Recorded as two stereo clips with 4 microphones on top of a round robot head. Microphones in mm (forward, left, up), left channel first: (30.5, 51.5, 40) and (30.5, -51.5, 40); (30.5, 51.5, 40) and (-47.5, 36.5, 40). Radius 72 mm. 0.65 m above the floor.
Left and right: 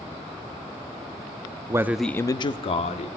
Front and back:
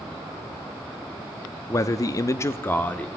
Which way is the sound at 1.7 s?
35° right.